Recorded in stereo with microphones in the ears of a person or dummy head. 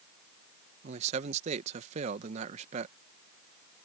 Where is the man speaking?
40° right (ahead or behind).